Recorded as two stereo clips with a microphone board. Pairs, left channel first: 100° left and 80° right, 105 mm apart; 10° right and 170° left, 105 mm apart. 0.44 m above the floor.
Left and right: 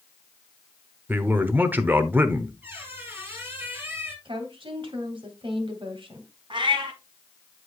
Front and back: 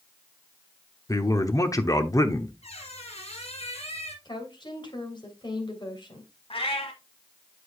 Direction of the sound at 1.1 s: 25° right.